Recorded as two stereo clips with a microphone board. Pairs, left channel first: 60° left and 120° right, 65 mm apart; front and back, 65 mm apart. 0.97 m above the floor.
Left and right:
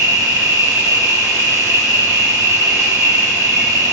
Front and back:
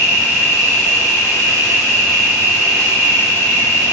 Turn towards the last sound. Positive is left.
turn(degrees=-115)